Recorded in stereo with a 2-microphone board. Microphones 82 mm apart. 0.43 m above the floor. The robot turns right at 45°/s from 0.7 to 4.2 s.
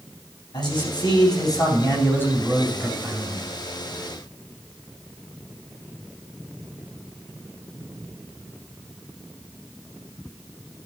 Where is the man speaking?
80° left, 4 m; by 3.5 s 155° right, 4 m.